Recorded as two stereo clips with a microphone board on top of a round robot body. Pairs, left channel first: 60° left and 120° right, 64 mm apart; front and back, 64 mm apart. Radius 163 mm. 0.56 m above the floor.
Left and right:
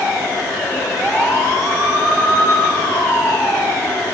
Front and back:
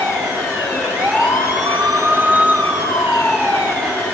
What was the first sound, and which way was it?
Only background noise.